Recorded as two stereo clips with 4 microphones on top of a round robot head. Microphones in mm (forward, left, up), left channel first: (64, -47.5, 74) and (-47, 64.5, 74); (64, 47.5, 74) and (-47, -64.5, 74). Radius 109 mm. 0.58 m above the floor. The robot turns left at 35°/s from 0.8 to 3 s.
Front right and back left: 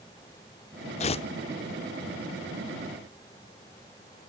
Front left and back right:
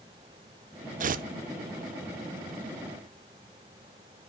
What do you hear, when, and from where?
1.0 s tearing paper: 95° right, 0.6 m; by 1.3 s 105° right, 0.6 m